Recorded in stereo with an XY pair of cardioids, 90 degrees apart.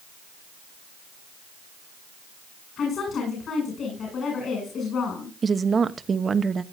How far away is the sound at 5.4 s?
About 1.0 m.